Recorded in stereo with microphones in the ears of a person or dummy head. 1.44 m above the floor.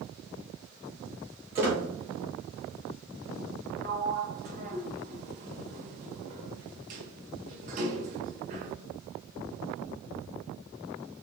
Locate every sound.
1.6 s a squeak: 20° right (ahead or behind), 1.6 m
3.8 s a sliding door: 50° right (ahead or behind), 0.8 m